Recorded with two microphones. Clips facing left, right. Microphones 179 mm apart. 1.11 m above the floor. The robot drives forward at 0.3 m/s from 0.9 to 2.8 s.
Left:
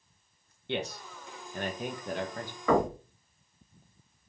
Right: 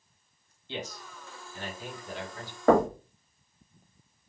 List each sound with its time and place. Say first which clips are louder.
0.7 s a man speaking: left 4 dB; 65° left (ahead or behind), 1.0 m; by 2.6 s 50° left (ahead or behind), 1.2 m
2.7 s knocking: right 4 dB; 50° right (ahead or behind), 1.0 m